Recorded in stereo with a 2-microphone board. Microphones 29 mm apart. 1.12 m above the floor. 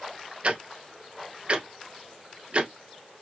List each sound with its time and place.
0.4 s ticking: 40° right (ahead or behind), 0.9 m